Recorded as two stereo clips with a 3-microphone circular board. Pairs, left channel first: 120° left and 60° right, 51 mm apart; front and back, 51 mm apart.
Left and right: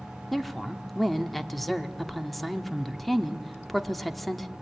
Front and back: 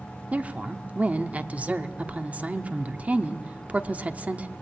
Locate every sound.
0.3 s a woman speaking: 155° right, 1.1 m